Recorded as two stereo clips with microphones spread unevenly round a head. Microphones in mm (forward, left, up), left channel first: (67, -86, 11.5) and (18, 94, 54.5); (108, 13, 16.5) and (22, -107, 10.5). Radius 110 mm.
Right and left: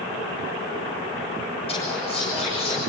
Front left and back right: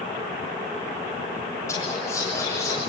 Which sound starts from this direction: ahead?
Whispering, at 1.7 s.